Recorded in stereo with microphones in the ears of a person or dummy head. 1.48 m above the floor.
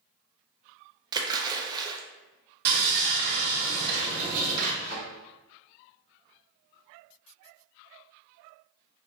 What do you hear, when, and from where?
1.1 s a splash: 20° right (ahead or behind), 0.5 m
2.6 s sawing: 50° right (ahead or behind), 1.2 m
4.8 s a thud: 40° left (ahead or behind), 1.7 m